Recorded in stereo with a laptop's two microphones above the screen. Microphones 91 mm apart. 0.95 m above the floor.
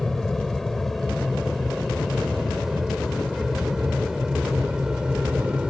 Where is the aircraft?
5° left (ahead or behind); by 5.7 s 10° right (ahead or behind).